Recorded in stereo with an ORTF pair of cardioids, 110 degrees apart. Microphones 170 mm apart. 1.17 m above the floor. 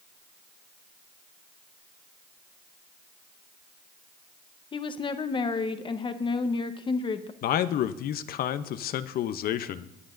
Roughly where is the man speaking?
Ahead left.